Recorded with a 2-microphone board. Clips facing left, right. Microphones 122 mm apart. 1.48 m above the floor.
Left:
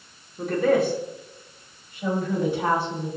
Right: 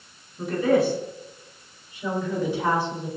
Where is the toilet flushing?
I don't hear a toilet flushing.